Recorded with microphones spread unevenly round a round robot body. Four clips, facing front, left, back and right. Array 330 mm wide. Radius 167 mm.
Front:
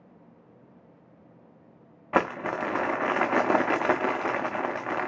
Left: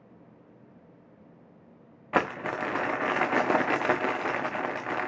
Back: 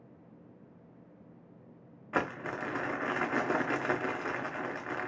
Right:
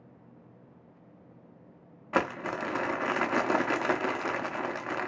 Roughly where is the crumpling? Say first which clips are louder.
Left 2 dB, front 8 dB; ahead.